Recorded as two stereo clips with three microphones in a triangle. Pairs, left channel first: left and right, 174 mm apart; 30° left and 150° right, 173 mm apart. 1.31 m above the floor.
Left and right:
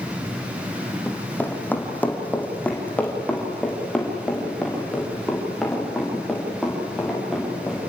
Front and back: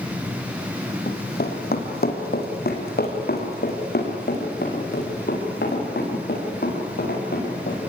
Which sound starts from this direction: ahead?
Running footsteps, at 1.1 s.